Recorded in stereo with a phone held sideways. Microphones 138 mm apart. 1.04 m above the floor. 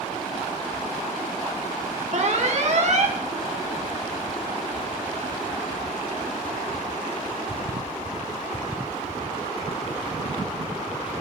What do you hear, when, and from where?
2.1 s an alarm: 55° right (ahead or behind), 1.7 m